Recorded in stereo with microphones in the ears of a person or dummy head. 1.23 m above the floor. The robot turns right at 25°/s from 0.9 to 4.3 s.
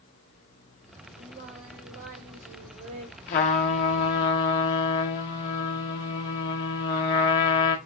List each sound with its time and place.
1.2 s singing: 130° right, 3 m; by 3.2 s 80° right, 3 m
3.3 s a trumpet: 25° left (ahead or behind), 0.5 m; by 7.8 s 20° left (ahead or behind), 0.5 m